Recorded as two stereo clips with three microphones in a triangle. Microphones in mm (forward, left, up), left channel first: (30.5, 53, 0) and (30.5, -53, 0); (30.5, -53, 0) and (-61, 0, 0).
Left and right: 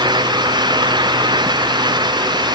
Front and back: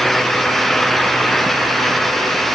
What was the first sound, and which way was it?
Only background noise.